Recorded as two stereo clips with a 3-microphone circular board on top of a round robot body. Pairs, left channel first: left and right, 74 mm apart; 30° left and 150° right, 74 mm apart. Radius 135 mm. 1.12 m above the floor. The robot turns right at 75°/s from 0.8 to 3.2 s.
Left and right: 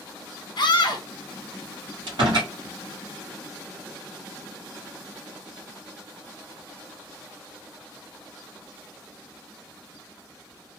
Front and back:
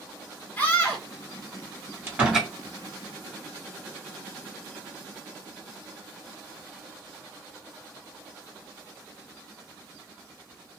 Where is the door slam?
90° right, 2 m; by 2.5 s 55° right, 2 m.